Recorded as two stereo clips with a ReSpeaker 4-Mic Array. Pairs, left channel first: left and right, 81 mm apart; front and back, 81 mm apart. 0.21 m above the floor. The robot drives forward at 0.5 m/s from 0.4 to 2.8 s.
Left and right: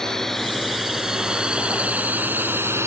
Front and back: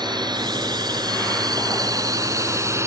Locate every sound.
0.0 s a drone: 175° left; by 2.9 s 135° right